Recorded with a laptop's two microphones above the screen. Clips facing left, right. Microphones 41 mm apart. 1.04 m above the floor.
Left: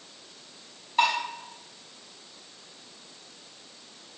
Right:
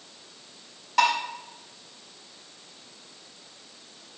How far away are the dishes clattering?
About 5 m.